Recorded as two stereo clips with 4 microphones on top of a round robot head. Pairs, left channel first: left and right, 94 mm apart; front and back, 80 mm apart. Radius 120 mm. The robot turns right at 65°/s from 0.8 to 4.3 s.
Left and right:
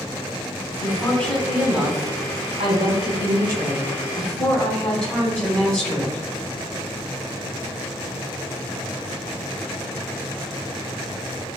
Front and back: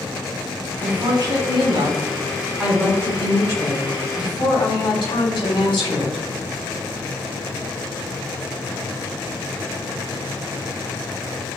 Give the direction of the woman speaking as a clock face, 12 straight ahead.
7 o'clock.